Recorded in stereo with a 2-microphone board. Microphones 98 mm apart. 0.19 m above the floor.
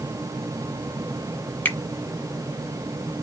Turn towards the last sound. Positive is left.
turn(degrees=15)  # may be behind; listen again after turning